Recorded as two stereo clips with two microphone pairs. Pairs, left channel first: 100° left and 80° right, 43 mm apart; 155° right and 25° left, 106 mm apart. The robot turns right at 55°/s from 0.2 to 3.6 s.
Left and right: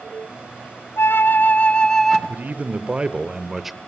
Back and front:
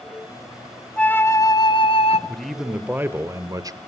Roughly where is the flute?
Behind left.